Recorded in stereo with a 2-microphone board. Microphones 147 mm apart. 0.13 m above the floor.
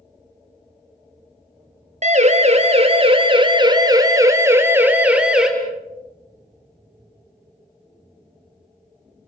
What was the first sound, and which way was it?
A siren, 55° right (ahead or behind).